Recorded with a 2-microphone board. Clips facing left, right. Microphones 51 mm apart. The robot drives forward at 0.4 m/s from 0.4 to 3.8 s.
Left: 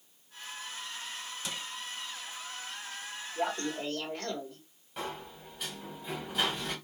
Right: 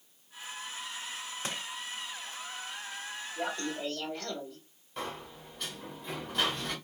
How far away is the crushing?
About 0.7 m.